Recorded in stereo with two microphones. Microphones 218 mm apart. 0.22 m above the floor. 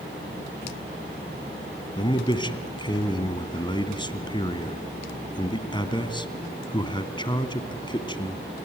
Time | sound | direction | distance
2.0 | a man speaking | 20° left (ahead or behind) | 1.9 m